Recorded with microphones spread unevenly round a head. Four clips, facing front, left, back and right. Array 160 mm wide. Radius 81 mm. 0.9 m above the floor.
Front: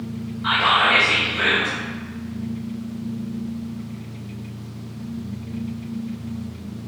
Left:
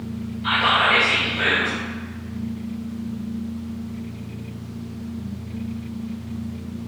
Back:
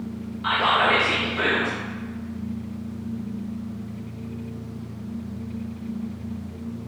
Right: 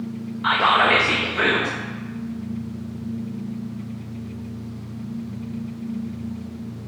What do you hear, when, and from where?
0.4 s whispering: 115° right, 0.6 m